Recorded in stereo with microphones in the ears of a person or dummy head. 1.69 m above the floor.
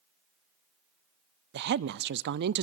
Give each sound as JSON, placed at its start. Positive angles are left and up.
{"t": 1.5, "sound": "a woman speaking", "side_deg": -65, "distance_m": 0.6}